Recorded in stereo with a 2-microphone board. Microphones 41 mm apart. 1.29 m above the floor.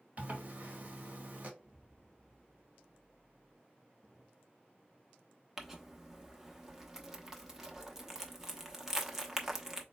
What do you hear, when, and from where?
0.2 s a zipper: 40° right (ahead or behind), 1.4 m
1.6 s an explosion: 5° right (ahead or behind), 2.5 m
4.0 s a drawer: 5° left (ahead or behind), 2.5 m
5.6 s crumpling: 10° right (ahead or behind), 0.8 m